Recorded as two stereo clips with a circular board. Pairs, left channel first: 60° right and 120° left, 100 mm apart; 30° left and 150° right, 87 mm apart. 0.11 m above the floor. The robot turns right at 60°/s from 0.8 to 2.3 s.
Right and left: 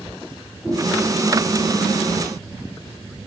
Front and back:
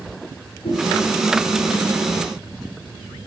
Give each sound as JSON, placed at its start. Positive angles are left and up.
{"t": 0.6, "sound": "a whoosh", "azimuth_deg": 25, "distance_m": 9.5}